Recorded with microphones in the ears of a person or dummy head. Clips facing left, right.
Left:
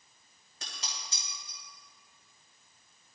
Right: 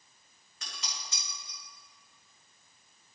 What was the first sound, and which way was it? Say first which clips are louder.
Dishes clattering: even; 30° left (ahead or behind).